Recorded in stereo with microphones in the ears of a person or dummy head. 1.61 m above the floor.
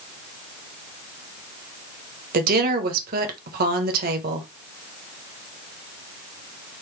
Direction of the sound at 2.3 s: 45° right (ahead or behind).